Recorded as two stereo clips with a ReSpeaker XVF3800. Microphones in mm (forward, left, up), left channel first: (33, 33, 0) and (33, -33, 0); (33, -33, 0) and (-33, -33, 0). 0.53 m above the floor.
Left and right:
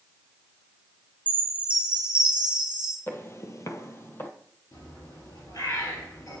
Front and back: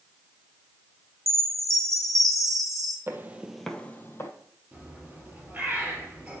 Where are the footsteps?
135° left, 0.9 m; by 4.3 s 35° left, 1.0 m.